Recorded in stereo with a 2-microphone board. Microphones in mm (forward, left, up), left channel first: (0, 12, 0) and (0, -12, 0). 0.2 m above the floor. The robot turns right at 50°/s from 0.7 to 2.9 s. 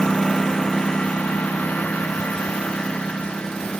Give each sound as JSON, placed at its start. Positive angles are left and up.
{"t": 0.0, "sound": "a lawn mower", "side_deg": 30}